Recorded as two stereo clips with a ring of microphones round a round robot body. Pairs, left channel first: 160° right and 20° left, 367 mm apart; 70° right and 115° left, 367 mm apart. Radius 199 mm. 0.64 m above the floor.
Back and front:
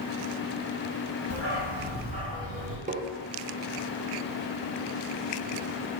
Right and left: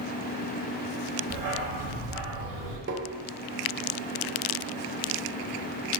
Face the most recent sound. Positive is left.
turn(degrees=80)